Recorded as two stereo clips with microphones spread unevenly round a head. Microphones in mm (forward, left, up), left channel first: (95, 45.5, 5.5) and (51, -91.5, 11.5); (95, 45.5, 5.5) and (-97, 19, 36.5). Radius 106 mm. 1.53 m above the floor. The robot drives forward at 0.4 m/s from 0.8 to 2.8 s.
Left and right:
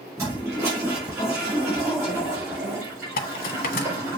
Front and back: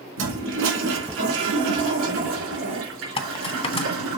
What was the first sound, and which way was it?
A toilet flushing, 175° left.